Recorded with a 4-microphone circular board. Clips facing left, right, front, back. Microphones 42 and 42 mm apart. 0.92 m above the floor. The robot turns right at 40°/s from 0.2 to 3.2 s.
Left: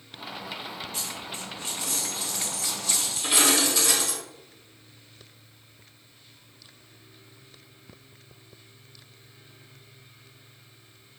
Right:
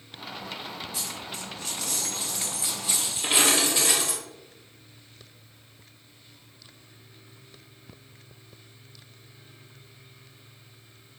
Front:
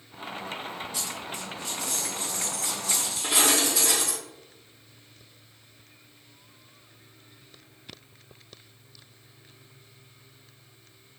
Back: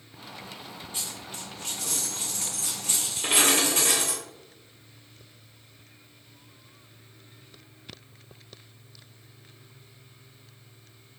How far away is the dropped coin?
About 1.5 m.